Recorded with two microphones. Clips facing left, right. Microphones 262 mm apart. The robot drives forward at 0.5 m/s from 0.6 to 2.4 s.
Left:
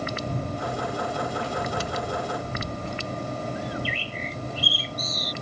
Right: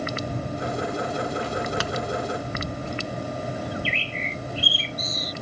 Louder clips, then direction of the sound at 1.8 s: Right 2 dB; 80° right.